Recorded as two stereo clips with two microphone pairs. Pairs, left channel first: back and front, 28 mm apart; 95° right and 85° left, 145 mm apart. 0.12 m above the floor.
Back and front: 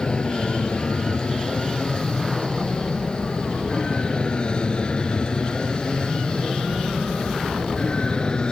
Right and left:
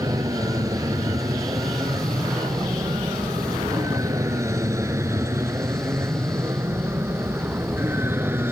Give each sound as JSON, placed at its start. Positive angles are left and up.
{"t": 0.0, "sound": "an aircraft", "azimuth_deg": 140}